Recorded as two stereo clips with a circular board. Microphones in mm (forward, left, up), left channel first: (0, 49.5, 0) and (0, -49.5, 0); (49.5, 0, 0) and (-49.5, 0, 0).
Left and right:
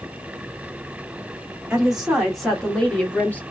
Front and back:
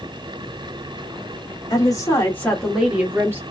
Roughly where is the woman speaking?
Ahead.